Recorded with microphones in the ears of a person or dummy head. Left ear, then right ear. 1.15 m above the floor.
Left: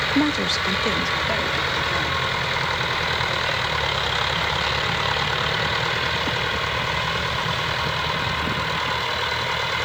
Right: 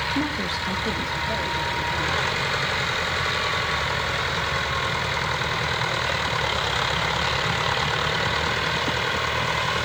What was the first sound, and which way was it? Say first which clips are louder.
A woman speaking: left 5 dB; 60° left (ahead or behind).